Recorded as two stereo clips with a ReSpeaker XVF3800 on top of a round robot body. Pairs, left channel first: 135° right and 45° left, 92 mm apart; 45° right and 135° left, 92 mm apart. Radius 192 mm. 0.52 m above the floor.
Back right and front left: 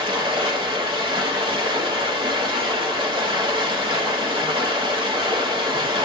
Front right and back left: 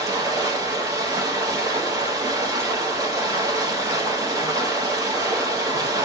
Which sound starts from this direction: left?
Running water, at 0.0 s.